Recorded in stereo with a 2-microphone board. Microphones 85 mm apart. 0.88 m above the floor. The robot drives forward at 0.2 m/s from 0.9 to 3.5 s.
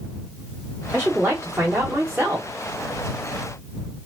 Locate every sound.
0.9 s a woman speaking: 20° right (ahead or behind), 1.1 m